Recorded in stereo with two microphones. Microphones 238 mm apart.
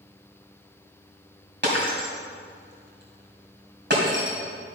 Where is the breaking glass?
50° right (ahead or behind), 2.5 m.